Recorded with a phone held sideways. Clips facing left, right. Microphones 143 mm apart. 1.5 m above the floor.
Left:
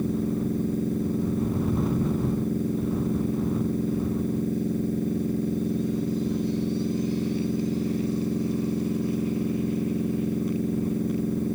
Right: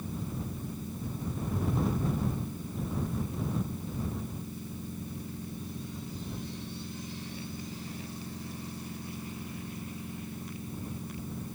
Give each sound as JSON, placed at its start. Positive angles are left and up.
{"t": 0.0, "sound": "a machine running", "side_deg": 65}